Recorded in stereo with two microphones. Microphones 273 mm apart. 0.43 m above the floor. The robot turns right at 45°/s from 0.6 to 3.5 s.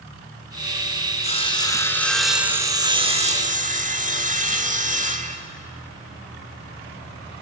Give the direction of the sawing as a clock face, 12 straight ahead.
8 o'clock.